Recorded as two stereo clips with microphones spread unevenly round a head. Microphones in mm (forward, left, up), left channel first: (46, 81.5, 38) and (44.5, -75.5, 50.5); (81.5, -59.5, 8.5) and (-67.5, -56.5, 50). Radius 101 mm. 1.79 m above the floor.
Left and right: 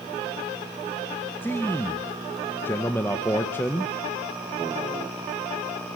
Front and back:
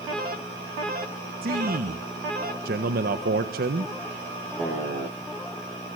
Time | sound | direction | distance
1.4 | a man speaking | 170° left | 1.5 m